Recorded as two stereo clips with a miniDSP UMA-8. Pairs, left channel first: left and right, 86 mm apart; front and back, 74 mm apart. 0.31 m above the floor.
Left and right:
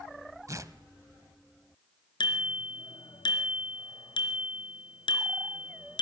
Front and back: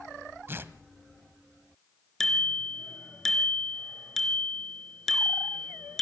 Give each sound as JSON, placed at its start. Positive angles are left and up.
{"t": 0.5, "sound": "tearing paper", "azimuth_deg": -130, "distance_m": 1.0}
{"t": 2.2, "sound": "a bicycle bell", "azimuth_deg": 85, "distance_m": 3.5}